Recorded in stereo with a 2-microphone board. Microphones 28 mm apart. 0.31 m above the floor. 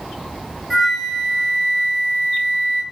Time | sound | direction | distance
0.7 | a flute | 5° right (ahead or behind) | 2.5 m